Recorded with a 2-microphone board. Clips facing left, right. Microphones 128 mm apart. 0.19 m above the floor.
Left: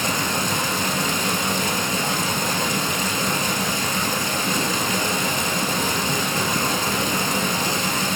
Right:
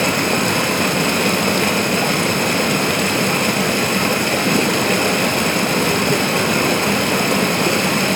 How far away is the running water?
About 1.8 m.